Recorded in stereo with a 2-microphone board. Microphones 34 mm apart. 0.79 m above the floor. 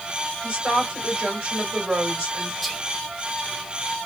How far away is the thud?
I don't hear a thud.